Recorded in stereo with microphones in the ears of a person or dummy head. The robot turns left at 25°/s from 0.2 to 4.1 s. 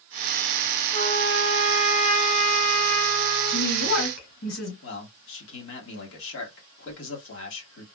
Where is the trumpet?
150° left, 2 m; by 3.7 s 80° left, 2 m.